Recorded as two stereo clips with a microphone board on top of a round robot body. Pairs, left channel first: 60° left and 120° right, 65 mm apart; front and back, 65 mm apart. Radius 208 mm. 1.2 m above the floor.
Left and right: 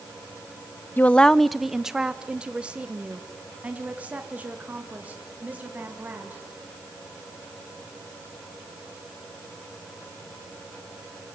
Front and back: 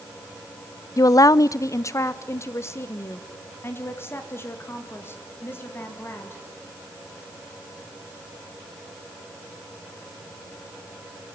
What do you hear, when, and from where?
1.0 s a woman speaking: 5° left, 0.5 m; by 6.4 s 55° right, 4.5 m